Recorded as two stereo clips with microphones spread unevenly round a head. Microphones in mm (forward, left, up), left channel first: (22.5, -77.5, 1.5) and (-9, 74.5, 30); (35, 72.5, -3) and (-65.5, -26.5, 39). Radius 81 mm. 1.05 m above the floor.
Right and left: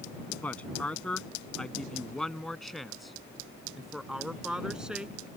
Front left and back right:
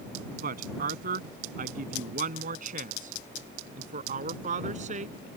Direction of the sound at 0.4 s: 160° right.